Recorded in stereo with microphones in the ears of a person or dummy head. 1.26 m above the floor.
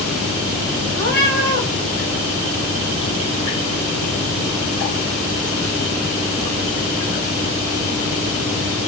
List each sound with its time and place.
1.0 s a cat meowing: 20° left (ahead or behind), 1.1 m